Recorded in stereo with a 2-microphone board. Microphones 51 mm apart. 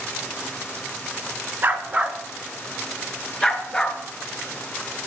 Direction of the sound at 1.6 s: 35° right (ahead or behind).